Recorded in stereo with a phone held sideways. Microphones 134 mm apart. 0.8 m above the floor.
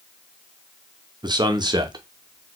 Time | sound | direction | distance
1.2 | a man speaking | 30° right (ahead or behind) | 0.6 m